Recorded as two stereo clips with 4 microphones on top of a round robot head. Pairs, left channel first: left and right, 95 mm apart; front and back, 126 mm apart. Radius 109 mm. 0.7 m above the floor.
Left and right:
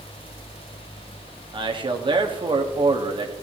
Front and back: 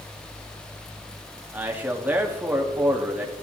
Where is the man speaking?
110° right, 1.3 m.